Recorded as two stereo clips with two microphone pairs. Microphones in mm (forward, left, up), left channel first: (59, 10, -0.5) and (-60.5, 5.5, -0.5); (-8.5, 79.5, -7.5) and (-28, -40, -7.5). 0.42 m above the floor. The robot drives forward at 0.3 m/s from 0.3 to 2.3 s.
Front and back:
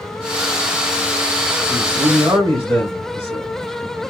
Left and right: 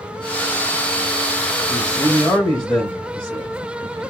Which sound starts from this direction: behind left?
A man speaking, at 1.7 s.